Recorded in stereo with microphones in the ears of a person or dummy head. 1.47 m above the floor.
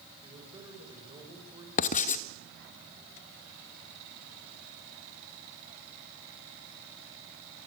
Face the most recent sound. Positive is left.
turn(degrees=45)  # may be behind; listen again after turning